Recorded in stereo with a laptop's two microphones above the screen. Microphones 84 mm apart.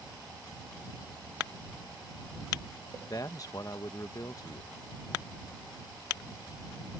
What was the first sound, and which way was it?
A man speaking, 45° left (ahead or behind).